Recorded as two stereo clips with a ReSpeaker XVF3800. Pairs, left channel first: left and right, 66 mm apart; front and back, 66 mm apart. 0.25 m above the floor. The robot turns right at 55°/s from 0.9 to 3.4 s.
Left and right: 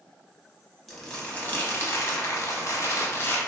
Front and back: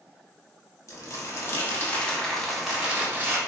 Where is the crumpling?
Straight ahead, 0.6 m; by 3.4 s 135° left, 0.6 m.